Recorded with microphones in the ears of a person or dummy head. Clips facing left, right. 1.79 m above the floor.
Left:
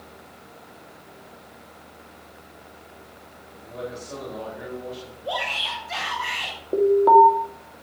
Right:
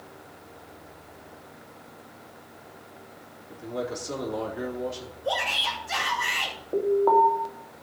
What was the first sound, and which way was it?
A man speaking, 75° right (ahead or behind).